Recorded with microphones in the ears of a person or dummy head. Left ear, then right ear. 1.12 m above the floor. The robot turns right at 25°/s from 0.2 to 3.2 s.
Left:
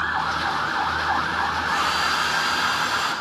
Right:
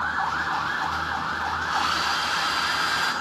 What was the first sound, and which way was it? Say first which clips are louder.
A hair dryer: even; 175° right.